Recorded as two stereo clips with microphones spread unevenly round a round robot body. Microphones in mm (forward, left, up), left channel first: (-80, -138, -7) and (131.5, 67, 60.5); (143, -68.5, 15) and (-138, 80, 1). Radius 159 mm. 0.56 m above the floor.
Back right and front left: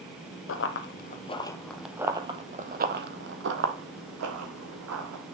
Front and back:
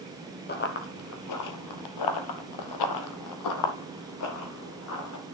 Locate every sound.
0.5 s running footsteps: 85° right, 1.2 m; by 5.4 s 15° left, 2.5 m